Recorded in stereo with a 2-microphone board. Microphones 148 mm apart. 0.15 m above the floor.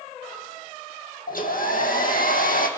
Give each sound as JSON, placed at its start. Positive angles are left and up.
{"t": 1.3, "sound": "a hair dryer", "side_deg": 70, "distance_m": 2.5}